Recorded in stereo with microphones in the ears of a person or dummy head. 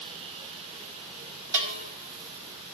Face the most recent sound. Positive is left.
turn(degrees=-20)  # may be behind; listen again after turning